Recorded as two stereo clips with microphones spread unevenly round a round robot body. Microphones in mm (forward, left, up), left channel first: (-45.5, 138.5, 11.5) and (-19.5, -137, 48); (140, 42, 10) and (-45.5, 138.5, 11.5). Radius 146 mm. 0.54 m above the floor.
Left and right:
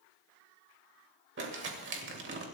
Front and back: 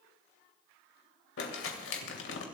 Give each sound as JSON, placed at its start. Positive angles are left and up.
{"t": 1.4, "sound": "crumpling", "azimuth_deg": -30, "distance_m": 2.5}